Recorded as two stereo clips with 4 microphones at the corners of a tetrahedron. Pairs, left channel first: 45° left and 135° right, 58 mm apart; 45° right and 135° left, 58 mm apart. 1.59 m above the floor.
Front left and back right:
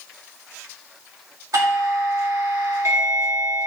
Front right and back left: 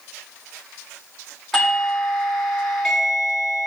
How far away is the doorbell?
About 2.5 m.